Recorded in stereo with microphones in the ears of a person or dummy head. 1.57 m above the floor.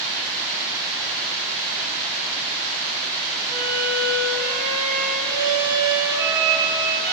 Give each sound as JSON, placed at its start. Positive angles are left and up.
{"t": 3.5, "sound": "a violin", "side_deg": -15, "distance_m": 1.4}